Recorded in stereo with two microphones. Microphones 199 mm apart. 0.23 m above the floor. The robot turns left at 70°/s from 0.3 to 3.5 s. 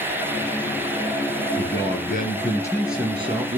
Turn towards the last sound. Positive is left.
turn(degrees=-40)